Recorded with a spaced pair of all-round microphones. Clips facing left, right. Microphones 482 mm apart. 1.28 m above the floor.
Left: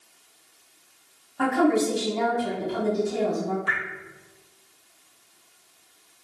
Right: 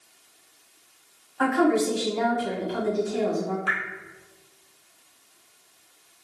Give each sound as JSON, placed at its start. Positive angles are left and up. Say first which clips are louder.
{"t": 1.4, "sound": "a woman speaking", "louder": "even", "side_deg": 60, "distance_m": 1.2}
{"t": 3.7, "sound": "dripping", "louder": "right 1 dB", "side_deg": -75, "distance_m": 1.0}